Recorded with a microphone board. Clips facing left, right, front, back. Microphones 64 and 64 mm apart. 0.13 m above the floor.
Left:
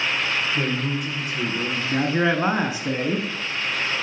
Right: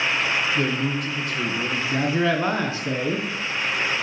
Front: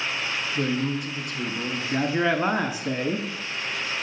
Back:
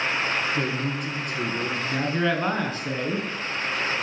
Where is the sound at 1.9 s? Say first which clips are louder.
Left 1 dB, front 3 dB; 55° left, 1.1 m.